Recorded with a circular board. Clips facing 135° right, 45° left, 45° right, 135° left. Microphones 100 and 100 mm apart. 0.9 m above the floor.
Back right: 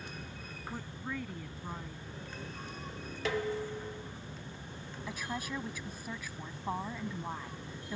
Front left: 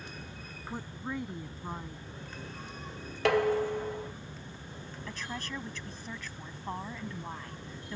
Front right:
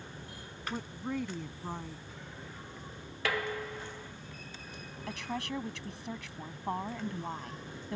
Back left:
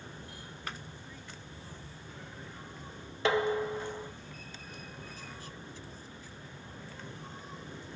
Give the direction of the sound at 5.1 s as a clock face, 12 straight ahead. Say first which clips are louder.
Back right 2 dB, front right 9 dB; 2 o'clock.